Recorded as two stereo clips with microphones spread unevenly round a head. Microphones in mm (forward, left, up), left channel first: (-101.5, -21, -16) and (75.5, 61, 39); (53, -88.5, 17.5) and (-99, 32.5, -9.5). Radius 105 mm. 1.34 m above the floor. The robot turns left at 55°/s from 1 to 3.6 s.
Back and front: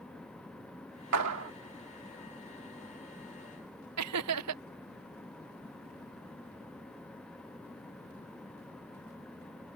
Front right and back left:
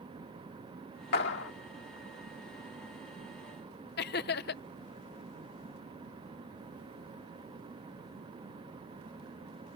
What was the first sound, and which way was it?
A clap, 10° left.